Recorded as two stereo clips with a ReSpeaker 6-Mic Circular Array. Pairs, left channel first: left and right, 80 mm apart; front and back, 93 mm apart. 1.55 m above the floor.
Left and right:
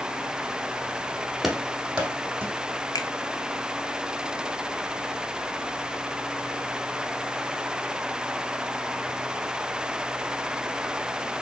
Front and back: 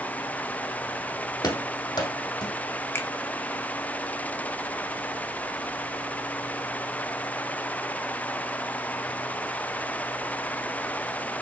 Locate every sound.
1.4 s running footsteps: 5° right, 2 m; by 2.5 s 30° right, 3 m
3.0 s a finger snap: 60° left, 1.3 m